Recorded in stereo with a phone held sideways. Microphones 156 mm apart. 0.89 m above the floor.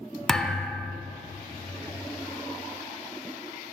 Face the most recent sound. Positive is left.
turn(degrees=5)  # may be behind; listen again after turning